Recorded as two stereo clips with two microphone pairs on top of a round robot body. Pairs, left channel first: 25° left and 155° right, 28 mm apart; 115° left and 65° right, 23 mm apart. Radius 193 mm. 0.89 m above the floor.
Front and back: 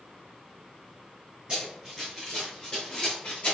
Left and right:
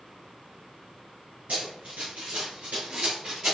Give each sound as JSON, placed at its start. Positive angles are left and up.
{"t": 1.5, "sound": "running footsteps", "azimuth_deg": -100, "distance_m": 1.1}